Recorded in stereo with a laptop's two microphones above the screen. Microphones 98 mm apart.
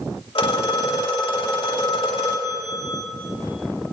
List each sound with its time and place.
0.3 s a phone ringing: 65° left (ahead or behind), 2.0 m